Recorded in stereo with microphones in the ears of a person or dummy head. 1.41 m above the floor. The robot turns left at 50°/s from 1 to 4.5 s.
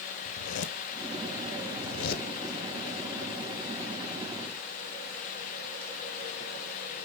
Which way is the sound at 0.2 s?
55° left (ahead or behind).